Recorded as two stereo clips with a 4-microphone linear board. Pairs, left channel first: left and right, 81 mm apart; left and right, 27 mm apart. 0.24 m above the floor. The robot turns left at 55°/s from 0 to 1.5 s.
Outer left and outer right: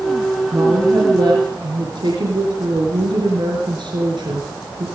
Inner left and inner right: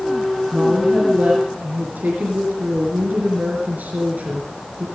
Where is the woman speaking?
25° right, 4 m; by 4.8 s 80° right, 4 m.